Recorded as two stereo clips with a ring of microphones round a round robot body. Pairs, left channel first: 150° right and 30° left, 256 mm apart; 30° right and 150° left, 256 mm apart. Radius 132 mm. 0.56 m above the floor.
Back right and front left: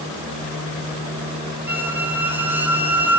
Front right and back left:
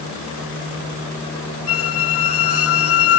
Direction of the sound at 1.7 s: 50° right.